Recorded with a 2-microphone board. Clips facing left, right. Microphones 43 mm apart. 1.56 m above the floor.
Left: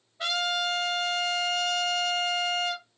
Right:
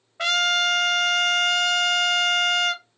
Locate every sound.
0.2 s a trumpet: 65° right (ahead or behind), 0.8 m